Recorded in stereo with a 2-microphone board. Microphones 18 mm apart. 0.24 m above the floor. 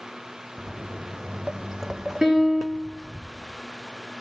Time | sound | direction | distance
0.6 | footsteps | 45° right (ahead or behind) | 1.2 m
2.2 | a piano | 20° right (ahead or behind) | 4 m